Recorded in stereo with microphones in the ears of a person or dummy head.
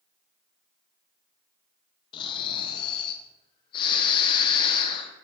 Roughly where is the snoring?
Left.